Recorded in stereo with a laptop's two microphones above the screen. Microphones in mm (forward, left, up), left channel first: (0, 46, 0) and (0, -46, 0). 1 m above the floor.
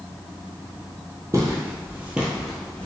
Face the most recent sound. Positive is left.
turn(degrees=15)  # may be behind; listen again after turning